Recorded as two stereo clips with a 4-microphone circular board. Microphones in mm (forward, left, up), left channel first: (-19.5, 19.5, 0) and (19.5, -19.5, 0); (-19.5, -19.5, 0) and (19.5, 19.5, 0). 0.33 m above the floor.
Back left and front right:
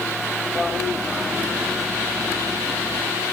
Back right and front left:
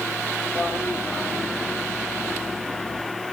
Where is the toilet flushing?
110° right, 8.5 m.